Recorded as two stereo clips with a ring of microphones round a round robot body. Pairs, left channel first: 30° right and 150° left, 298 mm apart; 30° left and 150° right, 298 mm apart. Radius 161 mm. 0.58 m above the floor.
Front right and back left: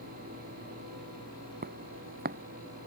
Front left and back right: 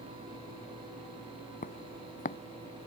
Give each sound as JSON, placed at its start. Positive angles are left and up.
{"t": 1.6, "sound": "footsteps", "azimuth_deg": 90}